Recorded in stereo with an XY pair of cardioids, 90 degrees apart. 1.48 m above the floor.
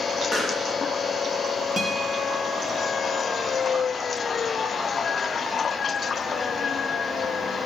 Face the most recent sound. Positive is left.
turn(degrees=20)